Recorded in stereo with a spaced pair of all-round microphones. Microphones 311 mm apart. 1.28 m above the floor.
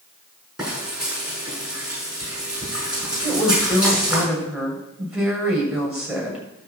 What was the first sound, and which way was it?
Frying, centre (ahead or behind).